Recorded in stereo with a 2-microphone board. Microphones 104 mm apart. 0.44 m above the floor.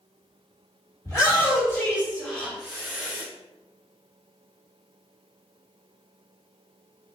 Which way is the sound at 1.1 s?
30° left (ahead or behind).